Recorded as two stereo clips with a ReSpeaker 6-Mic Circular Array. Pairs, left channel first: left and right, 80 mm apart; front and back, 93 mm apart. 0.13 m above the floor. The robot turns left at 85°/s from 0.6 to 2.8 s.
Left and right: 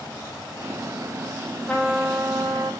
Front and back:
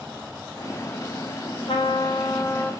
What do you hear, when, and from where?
1.7 s a trumpet: 10° left, 3.5 m; by 2.7 s 75° right, 3.5 m